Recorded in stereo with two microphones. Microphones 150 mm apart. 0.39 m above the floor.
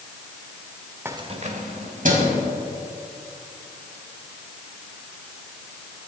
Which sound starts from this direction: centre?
Keys jangling, at 1.1 s.